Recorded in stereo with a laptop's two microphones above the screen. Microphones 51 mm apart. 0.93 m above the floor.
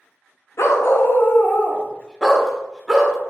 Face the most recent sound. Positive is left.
turn(degrees=-10)  # may be behind; listen again after turning